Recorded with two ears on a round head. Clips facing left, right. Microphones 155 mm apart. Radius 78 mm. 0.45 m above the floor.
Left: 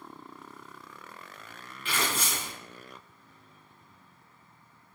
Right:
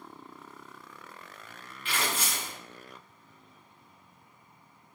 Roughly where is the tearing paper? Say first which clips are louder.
Left 1 dB; left.